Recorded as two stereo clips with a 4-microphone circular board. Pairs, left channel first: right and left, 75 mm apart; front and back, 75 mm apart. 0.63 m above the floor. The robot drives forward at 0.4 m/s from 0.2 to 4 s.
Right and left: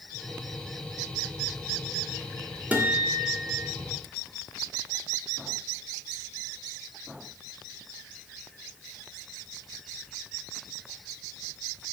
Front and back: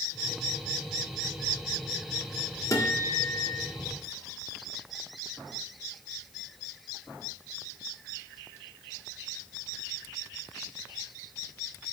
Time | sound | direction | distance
2.7 | a guitar | 25° left | 1.5 m